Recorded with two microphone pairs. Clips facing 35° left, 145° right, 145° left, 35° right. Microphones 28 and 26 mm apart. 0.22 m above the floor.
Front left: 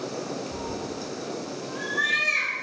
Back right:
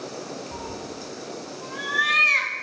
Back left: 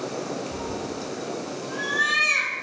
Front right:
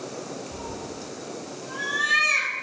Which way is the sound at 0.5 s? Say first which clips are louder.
Front left 2 dB, back left 4 dB; 130° right.